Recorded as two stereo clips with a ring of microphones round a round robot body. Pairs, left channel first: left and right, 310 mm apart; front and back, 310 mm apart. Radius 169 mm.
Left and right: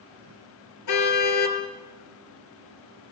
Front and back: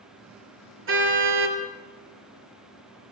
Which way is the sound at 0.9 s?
130° left.